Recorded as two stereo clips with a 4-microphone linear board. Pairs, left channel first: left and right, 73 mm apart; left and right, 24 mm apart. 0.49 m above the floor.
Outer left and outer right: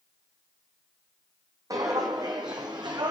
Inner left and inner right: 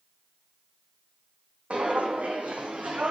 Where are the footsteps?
50° right (ahead or behind), 1.2 m; by 3.1 s 70° right (ahead or behind), 1.5 m.